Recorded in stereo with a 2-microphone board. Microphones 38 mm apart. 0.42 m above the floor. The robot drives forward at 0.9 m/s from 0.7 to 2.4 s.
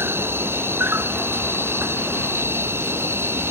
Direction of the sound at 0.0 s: 75° right (ahead or behind).